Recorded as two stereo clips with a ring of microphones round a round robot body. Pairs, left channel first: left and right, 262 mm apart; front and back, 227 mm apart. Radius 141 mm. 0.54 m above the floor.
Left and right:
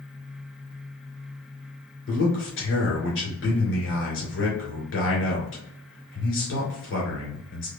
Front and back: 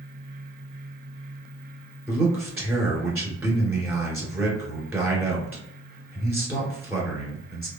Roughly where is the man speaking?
Left.